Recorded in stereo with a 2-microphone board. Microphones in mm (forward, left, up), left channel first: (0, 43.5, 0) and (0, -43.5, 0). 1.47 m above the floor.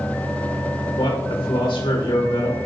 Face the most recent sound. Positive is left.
turn(degrees=85)